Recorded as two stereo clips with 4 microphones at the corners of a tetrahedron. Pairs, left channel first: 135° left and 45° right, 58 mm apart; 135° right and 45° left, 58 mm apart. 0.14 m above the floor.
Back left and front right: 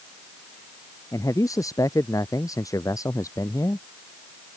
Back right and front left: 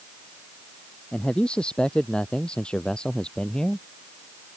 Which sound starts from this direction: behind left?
A man speaking, at 1.1 s.